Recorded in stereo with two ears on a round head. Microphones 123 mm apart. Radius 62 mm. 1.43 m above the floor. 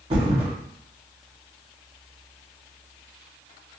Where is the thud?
40° right (ahead or behind), 1.1 m.